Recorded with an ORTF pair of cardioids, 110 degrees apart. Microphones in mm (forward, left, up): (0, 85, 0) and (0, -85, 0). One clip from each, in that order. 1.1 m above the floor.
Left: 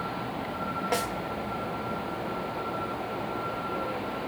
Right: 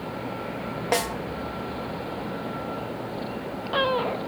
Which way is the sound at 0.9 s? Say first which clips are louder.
Right 6 dB; 30° right.